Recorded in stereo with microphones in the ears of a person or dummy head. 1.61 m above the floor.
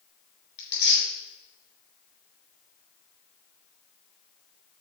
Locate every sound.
0.6 s tearing paper: 30° left (ahead or behind), 4.5 m